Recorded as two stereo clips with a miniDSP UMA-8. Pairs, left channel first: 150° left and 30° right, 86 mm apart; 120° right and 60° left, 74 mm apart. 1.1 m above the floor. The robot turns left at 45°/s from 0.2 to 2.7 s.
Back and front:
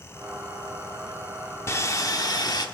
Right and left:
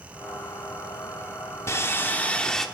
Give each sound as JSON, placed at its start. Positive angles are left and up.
{"t": 1.7, "sound": "sawing", "azimuth_deg": -160, "distance_m": 0.9}